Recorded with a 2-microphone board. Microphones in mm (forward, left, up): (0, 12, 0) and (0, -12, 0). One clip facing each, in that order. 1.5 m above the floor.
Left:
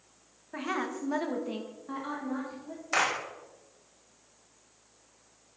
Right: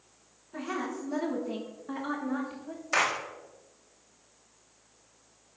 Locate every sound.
0.5 s a woman speaking: 70° left (ahead or behind), 1.6 m; by 2.8 s 30° right (ahead or behind), 2.5 m
2.9 s a clap: 5° right (ahead or behind), 1.6 m